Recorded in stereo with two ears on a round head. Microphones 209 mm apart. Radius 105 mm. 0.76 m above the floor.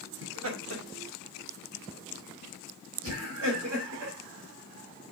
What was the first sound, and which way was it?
Laughter, 60° right (ahead or behind).